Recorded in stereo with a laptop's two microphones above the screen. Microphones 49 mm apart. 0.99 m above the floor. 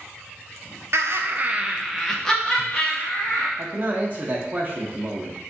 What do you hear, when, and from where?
0.9 s laughter: 65° right (ahead or behind), 0.6 m; by 3.5 s 30° left (ahead or behind), 1.4 m
3.6 s a man speaking: 35° right (ahead or behind), 0.7 m